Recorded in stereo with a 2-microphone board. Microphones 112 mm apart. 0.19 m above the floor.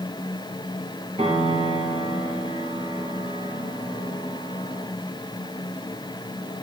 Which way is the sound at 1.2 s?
65° right (ahead or behind).